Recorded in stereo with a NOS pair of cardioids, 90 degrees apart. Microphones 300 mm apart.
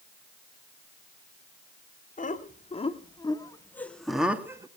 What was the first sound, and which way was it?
Laughter, 25° left.